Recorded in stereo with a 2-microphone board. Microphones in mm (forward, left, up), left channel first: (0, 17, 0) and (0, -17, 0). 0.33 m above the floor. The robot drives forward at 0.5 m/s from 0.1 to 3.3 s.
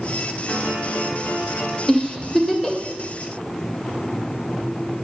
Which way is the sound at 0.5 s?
60° left (ahead or behind).